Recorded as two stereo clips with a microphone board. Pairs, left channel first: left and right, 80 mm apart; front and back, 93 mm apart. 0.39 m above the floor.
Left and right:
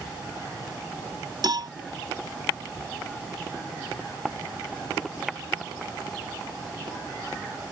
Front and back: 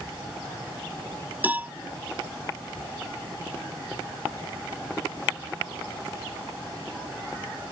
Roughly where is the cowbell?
Right.